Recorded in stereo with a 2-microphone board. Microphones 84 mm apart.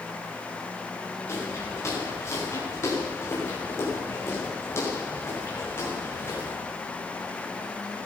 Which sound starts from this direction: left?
Footsteps, at 1.3 s.